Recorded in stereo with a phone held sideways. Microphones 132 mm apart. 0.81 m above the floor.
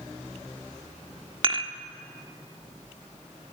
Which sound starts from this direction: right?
Dishes clattering, at 1.4 s.